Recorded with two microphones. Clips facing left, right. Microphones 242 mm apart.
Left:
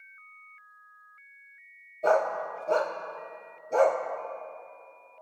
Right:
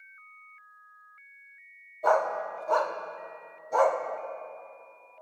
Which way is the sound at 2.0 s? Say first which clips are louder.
Left 1 dB; 25° left (ahead or behind).